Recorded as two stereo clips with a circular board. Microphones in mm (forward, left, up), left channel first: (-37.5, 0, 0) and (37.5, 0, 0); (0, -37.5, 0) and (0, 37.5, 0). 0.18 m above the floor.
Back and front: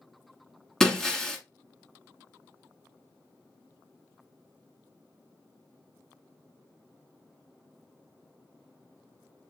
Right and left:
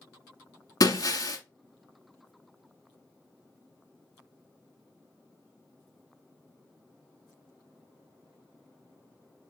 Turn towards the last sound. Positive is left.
turn(degrees=-100)